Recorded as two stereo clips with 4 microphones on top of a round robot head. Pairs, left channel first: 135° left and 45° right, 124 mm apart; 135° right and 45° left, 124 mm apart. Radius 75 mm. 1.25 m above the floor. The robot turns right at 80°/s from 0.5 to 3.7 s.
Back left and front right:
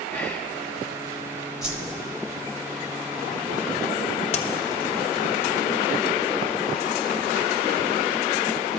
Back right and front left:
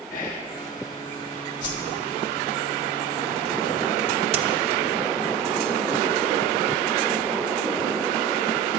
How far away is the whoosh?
About 1.5 m.